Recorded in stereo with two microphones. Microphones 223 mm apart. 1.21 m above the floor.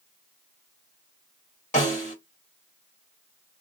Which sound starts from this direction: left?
A snare drum, at 1.7 s.